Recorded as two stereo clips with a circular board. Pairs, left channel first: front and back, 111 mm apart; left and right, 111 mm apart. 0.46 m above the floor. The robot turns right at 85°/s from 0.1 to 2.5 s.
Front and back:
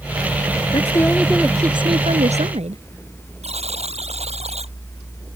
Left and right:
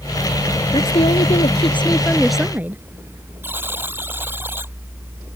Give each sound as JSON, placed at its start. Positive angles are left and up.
{"t": 0.7, "sound": "a woman speaking", "azimuth_deg": 45}
{"t": 3.4, "sound": "a buzzer", "azimuth_deg": -160}